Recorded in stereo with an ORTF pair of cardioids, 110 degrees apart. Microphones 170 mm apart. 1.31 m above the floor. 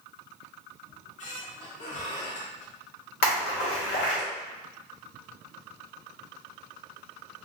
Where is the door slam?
I don't hear a door slam.